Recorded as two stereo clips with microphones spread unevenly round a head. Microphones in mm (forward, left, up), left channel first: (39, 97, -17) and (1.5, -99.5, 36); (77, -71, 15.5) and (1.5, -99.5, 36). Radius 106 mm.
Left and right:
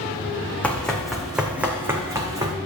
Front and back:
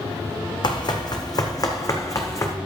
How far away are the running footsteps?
About 2.5 m.